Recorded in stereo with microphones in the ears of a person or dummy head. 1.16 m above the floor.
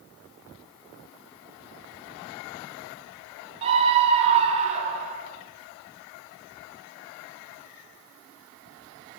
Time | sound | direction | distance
3.6 | a scream | 35° right (ahead or behind) | 4 m